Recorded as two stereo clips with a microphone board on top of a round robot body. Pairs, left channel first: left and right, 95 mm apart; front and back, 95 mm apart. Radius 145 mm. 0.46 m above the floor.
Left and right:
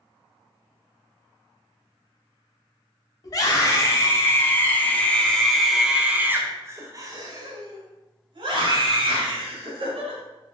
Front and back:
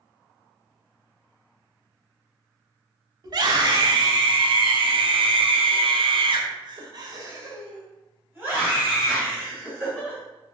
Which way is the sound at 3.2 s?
140° left.